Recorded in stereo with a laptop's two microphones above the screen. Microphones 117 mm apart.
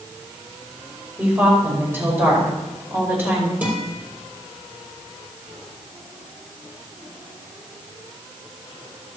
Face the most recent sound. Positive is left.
turn(degrees=-15)  # may be behind; listen again after turning